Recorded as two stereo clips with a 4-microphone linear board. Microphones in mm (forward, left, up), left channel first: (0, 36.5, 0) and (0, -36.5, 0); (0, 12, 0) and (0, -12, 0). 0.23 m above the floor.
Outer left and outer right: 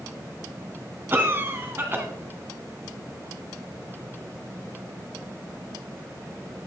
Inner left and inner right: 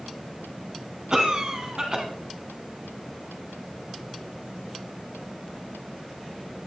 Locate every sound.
1.1 s a cough: 30° right (ahead or behind), 1.9 m